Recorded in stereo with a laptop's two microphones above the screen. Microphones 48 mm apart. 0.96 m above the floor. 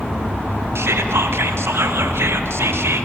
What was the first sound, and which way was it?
Whispering, 60° right (ahead or behind).